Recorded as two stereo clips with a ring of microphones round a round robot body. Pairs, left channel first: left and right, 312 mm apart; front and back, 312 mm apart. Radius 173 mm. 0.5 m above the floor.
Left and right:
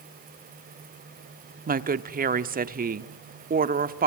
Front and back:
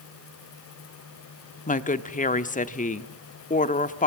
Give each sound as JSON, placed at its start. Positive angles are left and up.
{"t": 1.7, "sound": "a woman speaking", "azimuth_deg": -50, "distance_m": 1.2}